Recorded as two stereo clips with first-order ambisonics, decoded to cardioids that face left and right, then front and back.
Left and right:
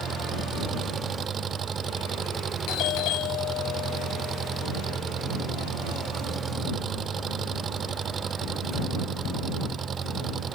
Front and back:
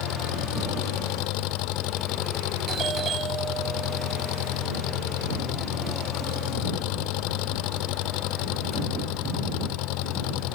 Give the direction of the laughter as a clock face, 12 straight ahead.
I don't hear laughter.